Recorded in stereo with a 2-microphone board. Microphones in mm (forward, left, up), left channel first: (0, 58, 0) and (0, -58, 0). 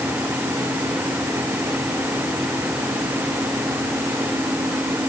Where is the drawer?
No drawer in this recording.